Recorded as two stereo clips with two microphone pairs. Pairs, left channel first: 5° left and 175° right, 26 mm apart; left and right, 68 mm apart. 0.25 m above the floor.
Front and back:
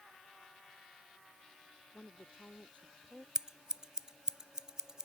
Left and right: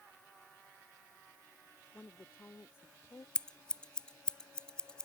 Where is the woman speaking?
30° left; by 3.2 s 45° left.